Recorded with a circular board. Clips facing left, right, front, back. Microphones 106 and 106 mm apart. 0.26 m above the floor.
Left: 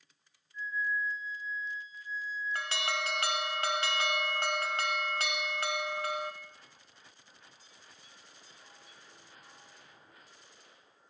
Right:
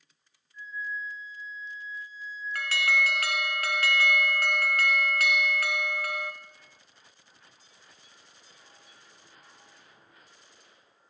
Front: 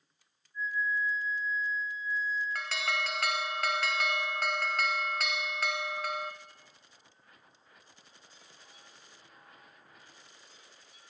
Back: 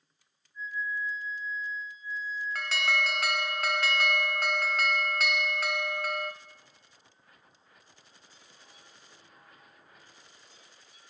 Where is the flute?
165° right, 3 m.